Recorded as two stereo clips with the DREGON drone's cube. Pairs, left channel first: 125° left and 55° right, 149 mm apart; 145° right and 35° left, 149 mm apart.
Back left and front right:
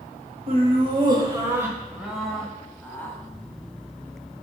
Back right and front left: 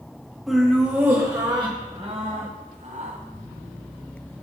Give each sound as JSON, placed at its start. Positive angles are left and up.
{"t": 0.5, "sound": "laughter", "azimuth_deg": -55, "distance_m": 1.5}